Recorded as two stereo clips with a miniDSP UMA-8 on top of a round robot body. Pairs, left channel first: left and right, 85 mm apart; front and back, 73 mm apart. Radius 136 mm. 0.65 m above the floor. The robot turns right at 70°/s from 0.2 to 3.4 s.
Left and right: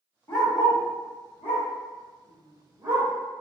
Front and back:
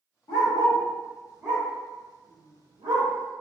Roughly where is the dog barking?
Ahead left.